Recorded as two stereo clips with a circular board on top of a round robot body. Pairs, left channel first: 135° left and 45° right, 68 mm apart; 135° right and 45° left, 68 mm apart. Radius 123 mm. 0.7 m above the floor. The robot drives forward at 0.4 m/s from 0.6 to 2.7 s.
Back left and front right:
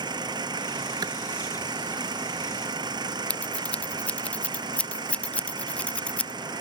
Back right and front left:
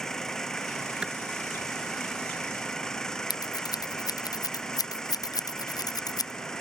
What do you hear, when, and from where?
0.0 s an engine running: 50° right; by 6.6 s 55° right
1.0 s a clap: 30° right
3.3 s scissors: 155° right